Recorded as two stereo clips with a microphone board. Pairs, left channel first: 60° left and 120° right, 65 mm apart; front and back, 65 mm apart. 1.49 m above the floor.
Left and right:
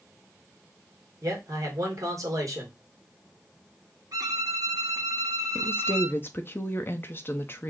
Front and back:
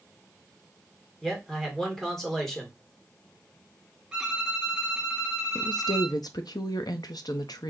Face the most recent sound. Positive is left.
turn(degrees=5)